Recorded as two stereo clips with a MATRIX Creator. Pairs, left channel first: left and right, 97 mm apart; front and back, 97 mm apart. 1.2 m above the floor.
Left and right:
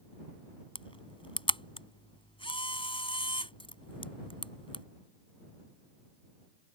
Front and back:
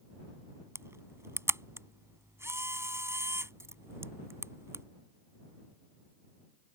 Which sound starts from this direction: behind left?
A camera shutter, at 0.8 s.